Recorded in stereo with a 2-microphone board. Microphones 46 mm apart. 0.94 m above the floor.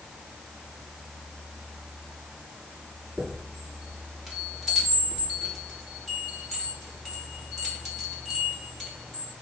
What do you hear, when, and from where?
3.2 s a chime: 5° right (ahead or behind), 2.5 m